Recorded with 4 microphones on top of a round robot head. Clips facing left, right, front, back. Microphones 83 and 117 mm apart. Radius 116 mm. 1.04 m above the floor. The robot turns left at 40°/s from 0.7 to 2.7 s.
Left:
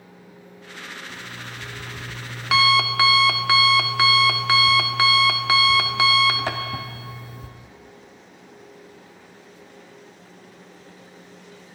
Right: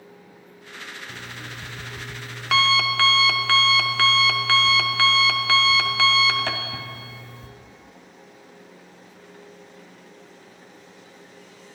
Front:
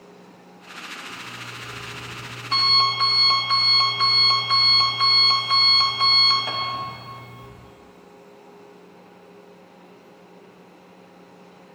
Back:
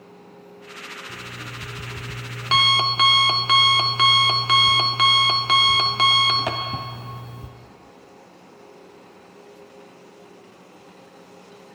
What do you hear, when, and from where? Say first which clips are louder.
1.1 s an alarm clock: left 1 dB, back 1 dB; 130° right, 1.0 m; by 7.5 s 165° left, 1.0 m